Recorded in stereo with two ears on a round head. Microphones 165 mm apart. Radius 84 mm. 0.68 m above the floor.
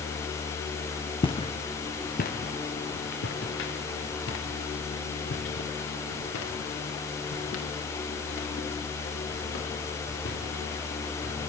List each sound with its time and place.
1.2 s footsteps: 30° left (ahead or behind), 2.5 m; by 11.3 s 70° left (ahead or behind), 10.5 m